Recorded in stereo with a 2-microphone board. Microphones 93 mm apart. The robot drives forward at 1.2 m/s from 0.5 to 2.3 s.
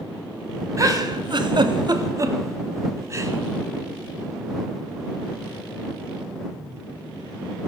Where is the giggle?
35° right (ahead or behind), 1.3 m.